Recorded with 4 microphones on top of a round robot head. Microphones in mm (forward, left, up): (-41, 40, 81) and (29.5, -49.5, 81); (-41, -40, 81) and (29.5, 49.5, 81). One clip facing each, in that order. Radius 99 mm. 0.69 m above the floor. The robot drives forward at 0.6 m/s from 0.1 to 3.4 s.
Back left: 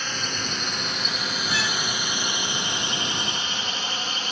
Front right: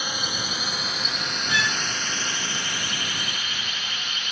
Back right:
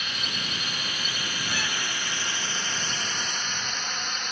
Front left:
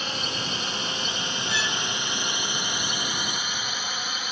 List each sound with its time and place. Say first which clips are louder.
0.0 s a drone: even, front left 4 dB; 20° left; by 4.3 s 135° left
1.5 s a violin: front right 3 dB, front left 3 dB; 175° right